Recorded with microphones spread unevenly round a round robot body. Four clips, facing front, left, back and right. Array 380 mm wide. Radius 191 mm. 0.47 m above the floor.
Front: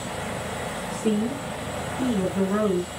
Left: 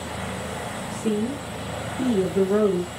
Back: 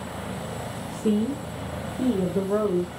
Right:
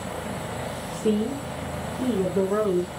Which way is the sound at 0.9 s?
155° right.